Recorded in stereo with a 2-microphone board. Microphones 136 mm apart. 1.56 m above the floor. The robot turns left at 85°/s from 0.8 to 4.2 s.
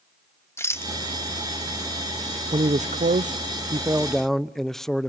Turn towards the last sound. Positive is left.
turn(degrees=175)